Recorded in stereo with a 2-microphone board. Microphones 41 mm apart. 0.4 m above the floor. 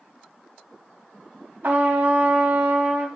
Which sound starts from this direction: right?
A trumpet, at 1.6 s.